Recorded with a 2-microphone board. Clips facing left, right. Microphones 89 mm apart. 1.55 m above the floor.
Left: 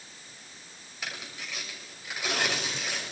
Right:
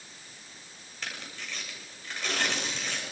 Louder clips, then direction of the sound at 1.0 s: Left 1 dB; 10° left (ahead or behind).